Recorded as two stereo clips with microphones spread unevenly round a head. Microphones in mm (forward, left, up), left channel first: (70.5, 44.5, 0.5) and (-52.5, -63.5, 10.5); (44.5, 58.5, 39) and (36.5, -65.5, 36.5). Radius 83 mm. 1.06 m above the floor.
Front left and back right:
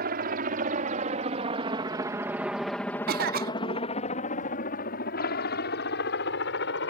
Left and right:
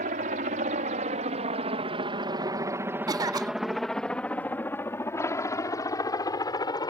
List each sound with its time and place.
0.0 s a helicopter: 115° right; by 6.9 s 30° left
3.1 s a cough: 145° right